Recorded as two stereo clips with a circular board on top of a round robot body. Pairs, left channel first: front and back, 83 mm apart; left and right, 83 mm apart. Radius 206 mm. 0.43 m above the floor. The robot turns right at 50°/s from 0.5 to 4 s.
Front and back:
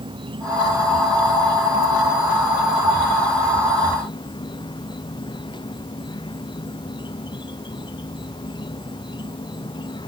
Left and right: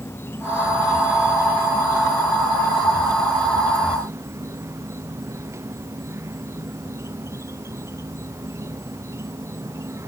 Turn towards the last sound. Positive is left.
turn(degrees=-30)